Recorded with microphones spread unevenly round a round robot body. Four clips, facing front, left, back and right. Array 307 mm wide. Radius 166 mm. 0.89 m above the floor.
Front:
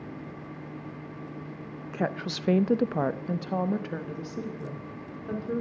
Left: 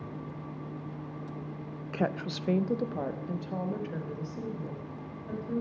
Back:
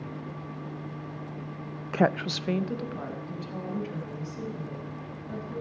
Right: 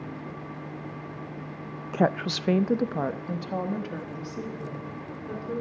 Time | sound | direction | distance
1.9 | a woman speaking | 135° right | 0.6 m